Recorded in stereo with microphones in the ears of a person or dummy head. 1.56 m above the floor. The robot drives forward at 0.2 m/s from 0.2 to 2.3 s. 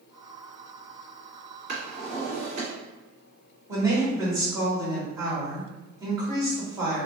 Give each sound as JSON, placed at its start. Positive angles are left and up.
{"t": 1.7, "sound": "a drawer", "side_deg": -50, "distance_m": 1.6}
{"t": 3.7, "sound": "a woman speaking", "side_deg": -15, "distance_m": 1.4}